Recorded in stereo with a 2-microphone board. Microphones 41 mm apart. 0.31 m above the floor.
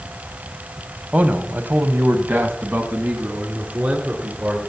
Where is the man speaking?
35° right (ahead or behind), 1.8 m; by 4.6 s 45° right (ahead or behind), 5 m.